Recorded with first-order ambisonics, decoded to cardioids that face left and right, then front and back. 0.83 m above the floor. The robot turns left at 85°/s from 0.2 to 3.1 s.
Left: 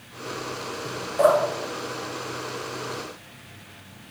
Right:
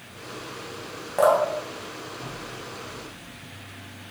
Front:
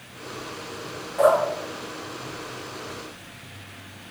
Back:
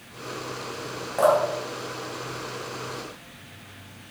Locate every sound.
1.2 s dripping: 115° right, 0.8 m; by 3.2 s 80° left, 0.8 m